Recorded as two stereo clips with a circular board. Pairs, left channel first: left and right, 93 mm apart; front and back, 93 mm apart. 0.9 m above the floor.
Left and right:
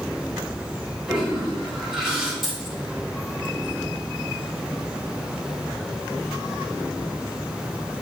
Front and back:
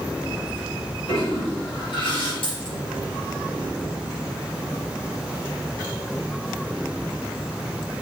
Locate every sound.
1.1 s a toilet flushing: 5° right, 3.5 m
2.4 s a dropped coin: 5° right, 4.5 m